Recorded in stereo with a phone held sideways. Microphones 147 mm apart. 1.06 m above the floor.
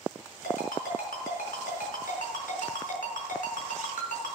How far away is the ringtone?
About 4 m.